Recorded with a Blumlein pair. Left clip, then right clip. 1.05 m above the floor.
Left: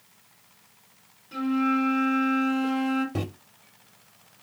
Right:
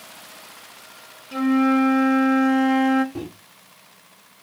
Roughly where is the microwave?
Ahead left.